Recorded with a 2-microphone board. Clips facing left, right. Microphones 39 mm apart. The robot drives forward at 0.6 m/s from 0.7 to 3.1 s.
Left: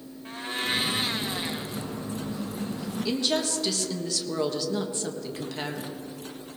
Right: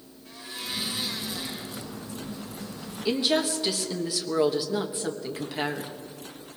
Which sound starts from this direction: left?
A blender, at 0.2 s.